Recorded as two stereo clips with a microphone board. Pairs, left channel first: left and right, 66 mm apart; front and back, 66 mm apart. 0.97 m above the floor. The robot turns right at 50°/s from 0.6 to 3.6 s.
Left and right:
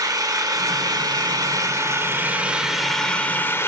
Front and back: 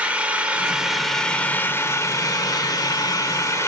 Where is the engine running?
110° right, 1.5 m; by 3.7 s 40° left, 1.5 m.